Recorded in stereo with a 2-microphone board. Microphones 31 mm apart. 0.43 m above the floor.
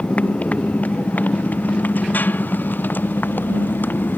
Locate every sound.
0.0 s a motorcycle: 40° left (ahead or behind); by 4.2 s 70° left (ahead or behind)